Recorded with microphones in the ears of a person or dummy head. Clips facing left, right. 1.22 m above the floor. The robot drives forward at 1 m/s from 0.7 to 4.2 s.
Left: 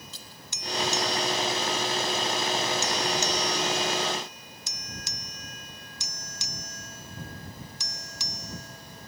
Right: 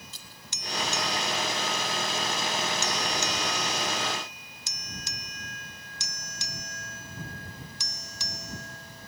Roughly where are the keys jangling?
Right.